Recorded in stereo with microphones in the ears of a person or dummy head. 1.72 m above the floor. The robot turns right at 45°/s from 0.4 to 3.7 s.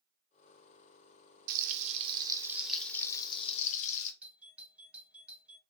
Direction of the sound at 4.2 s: 5° right (ahead or behind).